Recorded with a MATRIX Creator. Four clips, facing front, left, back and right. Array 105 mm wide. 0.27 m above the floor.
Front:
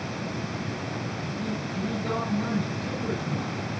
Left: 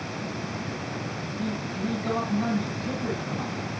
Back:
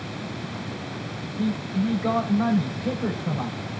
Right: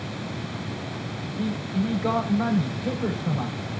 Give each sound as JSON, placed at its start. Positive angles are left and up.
{"t": 1.4, "sound": "a man speaking", "azimuth_deg": -130, "distance_m": 8.0}